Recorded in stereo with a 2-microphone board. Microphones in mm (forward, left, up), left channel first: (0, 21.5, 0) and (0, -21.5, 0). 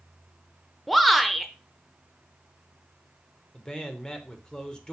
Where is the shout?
Centre (ahead or behind), 0.8 m.